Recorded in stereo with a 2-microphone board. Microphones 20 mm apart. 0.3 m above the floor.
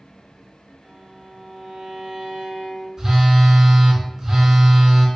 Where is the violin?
40° right (ahead or behind), 0.8 m.